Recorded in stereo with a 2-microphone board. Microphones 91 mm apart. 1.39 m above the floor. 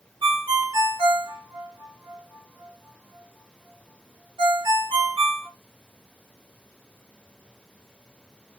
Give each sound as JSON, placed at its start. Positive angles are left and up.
{"t": 0.2, "sound": "a ringtone", "side_deg": -55, "distance_m": 1.3}